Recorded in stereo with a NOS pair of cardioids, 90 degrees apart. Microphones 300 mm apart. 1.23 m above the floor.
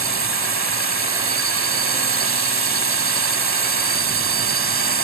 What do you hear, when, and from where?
0.0 s a drone: 45° right